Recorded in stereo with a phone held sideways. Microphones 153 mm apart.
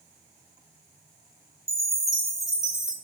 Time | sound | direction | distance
1.7 | a chime | 20° left (ahead or behind) | 0.9 m